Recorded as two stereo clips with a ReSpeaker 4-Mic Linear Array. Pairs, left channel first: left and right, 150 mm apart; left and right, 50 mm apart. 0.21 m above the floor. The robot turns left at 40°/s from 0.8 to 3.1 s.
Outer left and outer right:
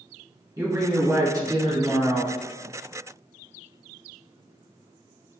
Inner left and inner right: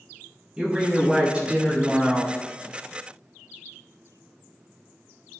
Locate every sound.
0.6 s a woman speaking: 25° right (ahead or behind), 1.1 m; by 2.3 s 15° right (ahead or behind), 1.1 m